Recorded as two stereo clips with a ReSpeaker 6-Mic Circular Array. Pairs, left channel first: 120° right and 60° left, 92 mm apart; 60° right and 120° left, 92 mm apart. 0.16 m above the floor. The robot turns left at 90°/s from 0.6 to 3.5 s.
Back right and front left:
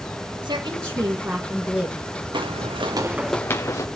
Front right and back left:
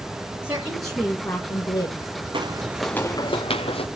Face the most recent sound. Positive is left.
turn(degrees=-65)